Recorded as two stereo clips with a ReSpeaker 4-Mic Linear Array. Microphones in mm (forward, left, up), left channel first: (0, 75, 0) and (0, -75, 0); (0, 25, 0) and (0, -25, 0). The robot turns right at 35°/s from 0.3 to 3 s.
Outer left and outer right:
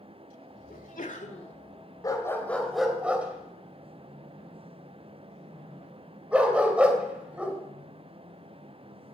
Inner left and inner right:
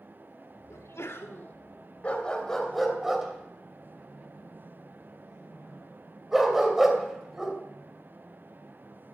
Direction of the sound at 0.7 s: 70° left (ahead or behind).